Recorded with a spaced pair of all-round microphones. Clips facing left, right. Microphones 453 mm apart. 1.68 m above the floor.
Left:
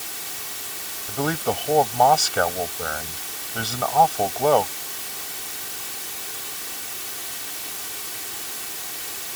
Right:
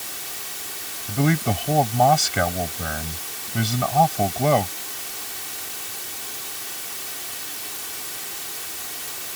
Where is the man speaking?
40° right (ahead or behind).